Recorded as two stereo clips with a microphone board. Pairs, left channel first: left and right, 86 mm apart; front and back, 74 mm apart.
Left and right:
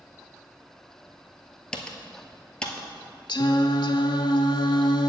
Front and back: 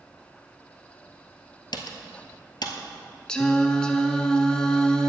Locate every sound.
1.7 s typing on a keyboard: 10° left, 1.0 m
3.3 s singing: 75° left, 0.6 m